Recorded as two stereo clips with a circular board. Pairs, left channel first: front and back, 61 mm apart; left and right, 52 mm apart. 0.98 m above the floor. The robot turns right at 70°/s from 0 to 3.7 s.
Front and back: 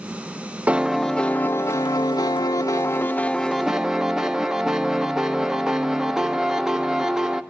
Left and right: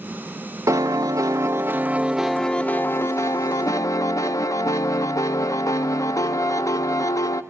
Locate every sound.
0.7 s a piano: 115° right, 0.7 m; by 7.4 s 100° left, 0.7 m